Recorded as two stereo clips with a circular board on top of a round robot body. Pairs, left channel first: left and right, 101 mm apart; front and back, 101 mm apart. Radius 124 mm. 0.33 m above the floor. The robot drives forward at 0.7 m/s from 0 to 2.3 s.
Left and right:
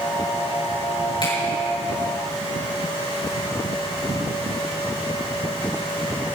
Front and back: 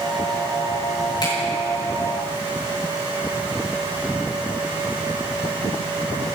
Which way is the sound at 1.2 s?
50° left.